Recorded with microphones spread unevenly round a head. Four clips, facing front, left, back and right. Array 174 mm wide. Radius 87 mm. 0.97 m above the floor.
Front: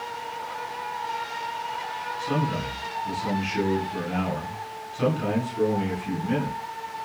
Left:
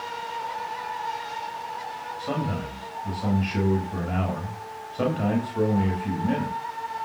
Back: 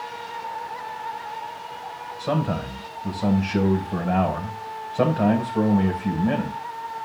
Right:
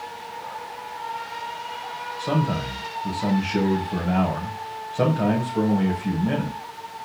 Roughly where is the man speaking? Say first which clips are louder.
Right 5 dB, back 3 dB; behind right.